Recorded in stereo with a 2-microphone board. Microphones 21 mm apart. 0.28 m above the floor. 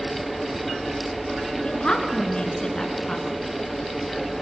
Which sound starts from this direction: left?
A woman speaking, at 1.6 s.